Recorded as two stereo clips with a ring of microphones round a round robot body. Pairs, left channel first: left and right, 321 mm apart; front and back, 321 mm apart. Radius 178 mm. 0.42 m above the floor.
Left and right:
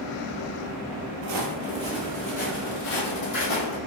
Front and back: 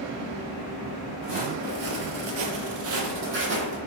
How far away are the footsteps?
About 0.6 m.